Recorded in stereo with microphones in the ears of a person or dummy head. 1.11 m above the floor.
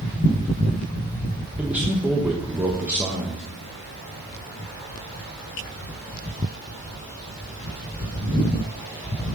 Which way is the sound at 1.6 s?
10° right (ahead or behind).